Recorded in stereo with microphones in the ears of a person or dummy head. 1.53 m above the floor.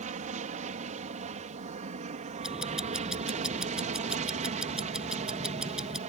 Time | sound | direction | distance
0.0 | an aircraft | 35° right (ahead or behind) | ?
2.4 | ticking | 5° right (ahead or behind) | ?